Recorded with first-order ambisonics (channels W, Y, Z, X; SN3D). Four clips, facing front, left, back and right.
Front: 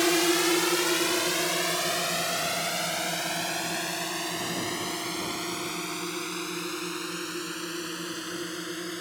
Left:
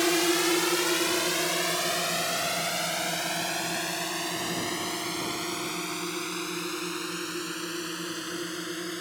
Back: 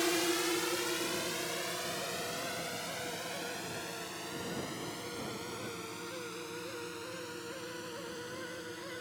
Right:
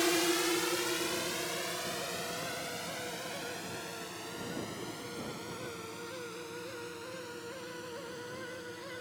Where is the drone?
30° left; by 9.0 s 50° left.